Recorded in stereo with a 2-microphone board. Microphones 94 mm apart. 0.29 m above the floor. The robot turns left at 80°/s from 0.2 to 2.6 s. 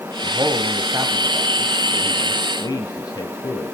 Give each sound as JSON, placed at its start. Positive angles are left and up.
{"t": 0.2, "sound": "a man speaking", "side_deg": -40, "distance_m": 1.8}